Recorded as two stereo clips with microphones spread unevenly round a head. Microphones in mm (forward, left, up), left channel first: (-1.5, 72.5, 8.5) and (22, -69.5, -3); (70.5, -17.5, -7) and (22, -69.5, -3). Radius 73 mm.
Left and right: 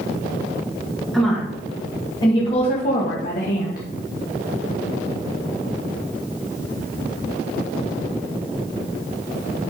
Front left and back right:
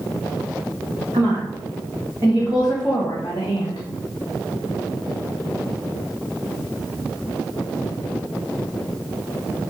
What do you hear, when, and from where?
1.1 s a woman speaking: 175° right, 2.5 m; by 3.9 s 85° left, 1.5 m